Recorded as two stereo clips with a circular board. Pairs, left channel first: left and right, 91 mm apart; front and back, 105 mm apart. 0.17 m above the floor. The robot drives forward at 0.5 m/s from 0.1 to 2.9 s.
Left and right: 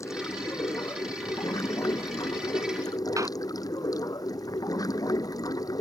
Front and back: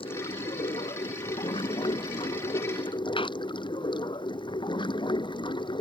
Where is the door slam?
35° right.